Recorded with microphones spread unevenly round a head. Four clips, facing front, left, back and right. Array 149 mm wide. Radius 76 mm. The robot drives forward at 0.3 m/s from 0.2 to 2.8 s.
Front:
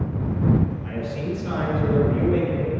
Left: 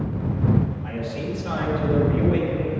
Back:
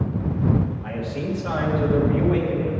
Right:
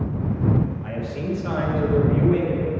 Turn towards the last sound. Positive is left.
turn(degrees=-150)